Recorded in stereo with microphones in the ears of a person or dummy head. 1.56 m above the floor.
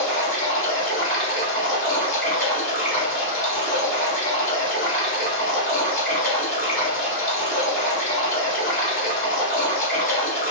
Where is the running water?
15° left (ahead or behind), 1.5 m.